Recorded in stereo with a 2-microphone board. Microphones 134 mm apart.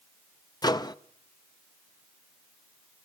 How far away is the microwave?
About 0.5 m.